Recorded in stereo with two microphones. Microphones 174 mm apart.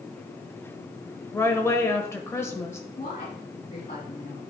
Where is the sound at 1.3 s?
15° left (ahead or behind), 1.0 m.